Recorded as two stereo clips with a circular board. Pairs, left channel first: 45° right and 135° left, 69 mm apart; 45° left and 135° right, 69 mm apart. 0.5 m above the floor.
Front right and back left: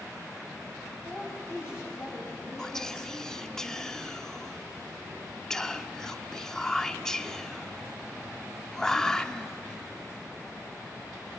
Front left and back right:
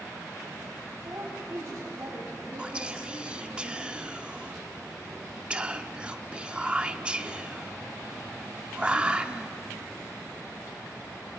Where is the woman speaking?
95° right, 3 m.